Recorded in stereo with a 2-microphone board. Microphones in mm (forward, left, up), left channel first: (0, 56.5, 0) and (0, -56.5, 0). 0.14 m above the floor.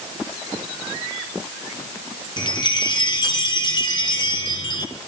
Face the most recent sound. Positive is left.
turn(degrees=40)  # may be behind; listen again after turning